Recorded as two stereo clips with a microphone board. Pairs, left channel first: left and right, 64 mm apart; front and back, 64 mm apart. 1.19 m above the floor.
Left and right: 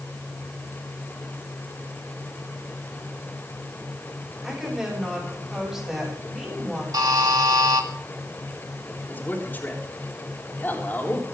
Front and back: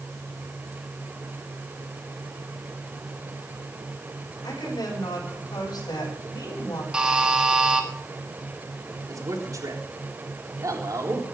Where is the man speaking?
150° left, 3.5 m.